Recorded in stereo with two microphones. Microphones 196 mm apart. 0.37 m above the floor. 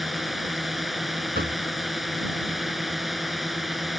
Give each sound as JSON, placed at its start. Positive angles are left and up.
{"t": 0.0, "sound": "a drone", "side_deg": 0}
{"t": 1.4, "sound": "knocking", "side_deg": -55}